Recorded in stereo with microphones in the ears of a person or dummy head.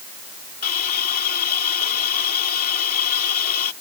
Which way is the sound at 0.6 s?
50° left (ahead or behind).